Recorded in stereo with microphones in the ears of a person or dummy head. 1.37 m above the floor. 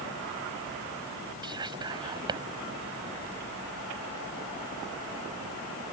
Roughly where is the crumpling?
No crumpling in this recording.